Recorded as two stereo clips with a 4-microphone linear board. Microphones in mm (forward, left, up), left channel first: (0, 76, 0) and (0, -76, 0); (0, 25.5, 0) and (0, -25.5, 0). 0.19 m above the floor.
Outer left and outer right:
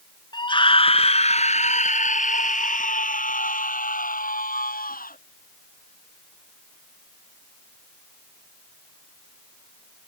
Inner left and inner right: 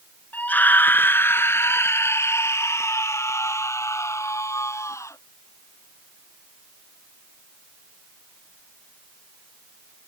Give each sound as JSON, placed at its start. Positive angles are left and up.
{"t": 0.3, "sound": "a scream", "side_deg": 30}